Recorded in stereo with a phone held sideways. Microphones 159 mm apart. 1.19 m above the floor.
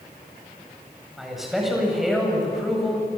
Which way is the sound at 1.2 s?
Centre (ahead or behind).